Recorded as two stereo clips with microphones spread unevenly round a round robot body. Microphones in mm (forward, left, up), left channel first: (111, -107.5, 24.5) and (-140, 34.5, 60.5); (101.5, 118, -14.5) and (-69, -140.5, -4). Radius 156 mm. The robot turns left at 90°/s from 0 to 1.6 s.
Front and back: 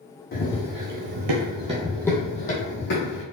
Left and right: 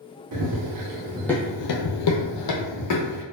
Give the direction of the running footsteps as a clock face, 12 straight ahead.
3 o'clock.